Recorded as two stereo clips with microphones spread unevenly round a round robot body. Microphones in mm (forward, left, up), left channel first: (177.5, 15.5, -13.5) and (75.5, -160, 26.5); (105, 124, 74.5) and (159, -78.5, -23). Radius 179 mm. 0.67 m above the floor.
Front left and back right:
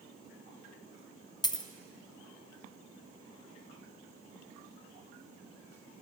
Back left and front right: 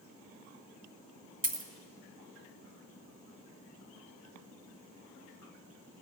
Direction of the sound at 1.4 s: 15° right.